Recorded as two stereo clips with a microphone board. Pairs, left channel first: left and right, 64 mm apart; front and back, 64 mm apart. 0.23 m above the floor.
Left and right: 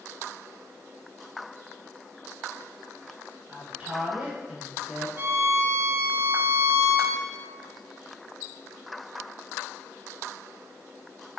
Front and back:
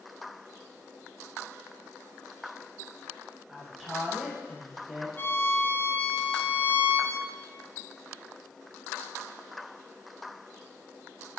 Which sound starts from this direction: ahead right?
A violin, at 5.2 s.